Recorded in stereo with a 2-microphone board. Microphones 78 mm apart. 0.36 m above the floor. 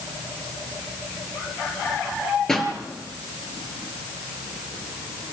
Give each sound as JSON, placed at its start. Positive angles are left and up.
{"t": 2.5, "sound": "a pop", "side_deg": 5, "distance_m": 3.0}